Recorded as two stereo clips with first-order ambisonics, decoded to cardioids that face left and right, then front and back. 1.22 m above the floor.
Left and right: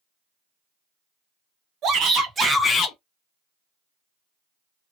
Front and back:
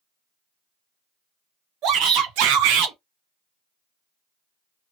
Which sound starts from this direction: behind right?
A shout, at 1.8 s.